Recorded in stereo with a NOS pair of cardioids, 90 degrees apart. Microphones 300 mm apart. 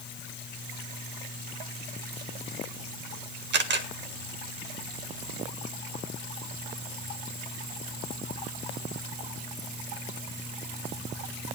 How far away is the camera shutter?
About 1.7 m.